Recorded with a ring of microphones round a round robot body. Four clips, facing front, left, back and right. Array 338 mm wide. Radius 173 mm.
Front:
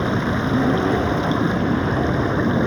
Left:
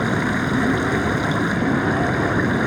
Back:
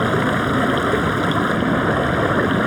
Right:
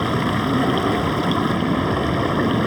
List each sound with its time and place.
0.0 s running water: 170° right